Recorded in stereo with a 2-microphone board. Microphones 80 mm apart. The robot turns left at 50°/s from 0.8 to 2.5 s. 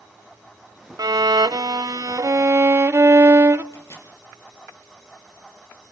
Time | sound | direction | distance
1.0 | a violin | 65° right | 0.6 m
3.7 | a microwave | 35° left (ahead or behind) | 4.5 m